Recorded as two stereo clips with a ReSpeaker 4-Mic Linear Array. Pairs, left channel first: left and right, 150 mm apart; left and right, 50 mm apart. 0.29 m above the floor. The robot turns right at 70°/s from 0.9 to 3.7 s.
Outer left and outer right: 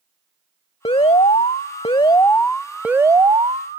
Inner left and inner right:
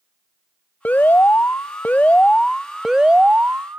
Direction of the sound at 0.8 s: 55° left.